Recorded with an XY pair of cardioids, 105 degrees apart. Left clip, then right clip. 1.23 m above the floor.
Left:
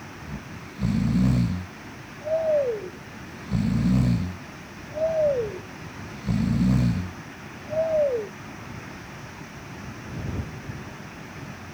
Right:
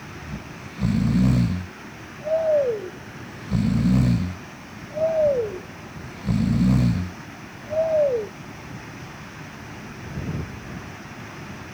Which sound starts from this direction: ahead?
Snoring, at 0.2 s.